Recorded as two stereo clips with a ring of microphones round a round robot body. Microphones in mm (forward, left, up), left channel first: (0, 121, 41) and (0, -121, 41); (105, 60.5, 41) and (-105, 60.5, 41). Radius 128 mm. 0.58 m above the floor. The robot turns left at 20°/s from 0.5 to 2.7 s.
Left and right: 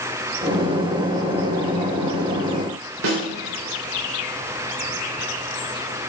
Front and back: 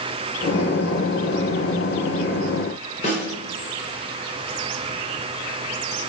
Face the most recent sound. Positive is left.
turn(degrees=-60)